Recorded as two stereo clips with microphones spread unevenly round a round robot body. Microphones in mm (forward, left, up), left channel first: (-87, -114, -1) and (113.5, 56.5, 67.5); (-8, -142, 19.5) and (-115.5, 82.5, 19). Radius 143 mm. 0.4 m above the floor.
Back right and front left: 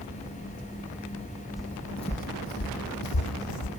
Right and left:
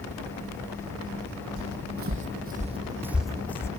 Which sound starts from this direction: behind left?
Footsteps, at 1.6 s.